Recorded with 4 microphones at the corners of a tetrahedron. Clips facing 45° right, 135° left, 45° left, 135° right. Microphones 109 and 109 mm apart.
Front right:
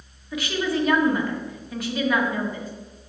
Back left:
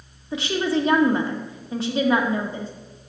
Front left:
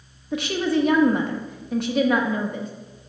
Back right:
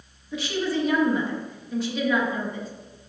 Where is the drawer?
I don't hear a drawer.